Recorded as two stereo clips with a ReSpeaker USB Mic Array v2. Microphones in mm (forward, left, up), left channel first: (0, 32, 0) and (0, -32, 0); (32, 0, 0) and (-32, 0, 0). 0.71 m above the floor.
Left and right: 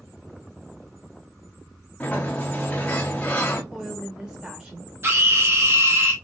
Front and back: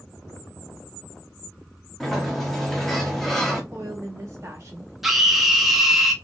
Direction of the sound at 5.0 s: 100° right.